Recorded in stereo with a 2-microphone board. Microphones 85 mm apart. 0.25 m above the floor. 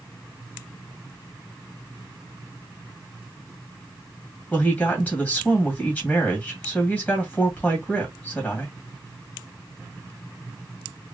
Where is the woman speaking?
15° left (ahead or behind), 1.7 m.